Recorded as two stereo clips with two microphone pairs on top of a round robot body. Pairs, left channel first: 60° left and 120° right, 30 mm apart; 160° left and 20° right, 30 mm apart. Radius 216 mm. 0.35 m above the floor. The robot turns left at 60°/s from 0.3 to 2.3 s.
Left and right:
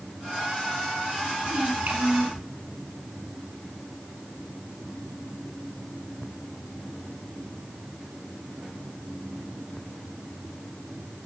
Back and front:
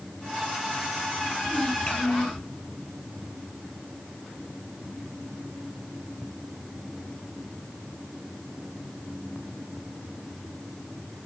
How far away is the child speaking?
About 7 m.